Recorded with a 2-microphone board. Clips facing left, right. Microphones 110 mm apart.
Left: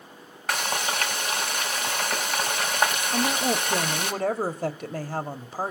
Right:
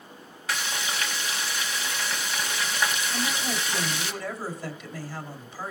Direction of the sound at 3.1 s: 55° left (ahead or behind).